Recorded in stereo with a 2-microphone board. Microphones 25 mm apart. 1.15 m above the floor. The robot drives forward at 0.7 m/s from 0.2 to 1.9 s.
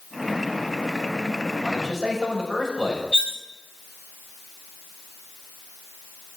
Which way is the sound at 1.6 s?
15° right (ahead or behind).